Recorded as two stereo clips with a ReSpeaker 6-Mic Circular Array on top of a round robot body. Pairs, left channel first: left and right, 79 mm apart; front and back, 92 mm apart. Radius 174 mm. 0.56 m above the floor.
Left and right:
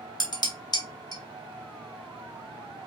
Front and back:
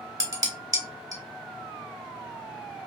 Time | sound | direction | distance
0.2 | dishes clattering | 130° left | 1.8 m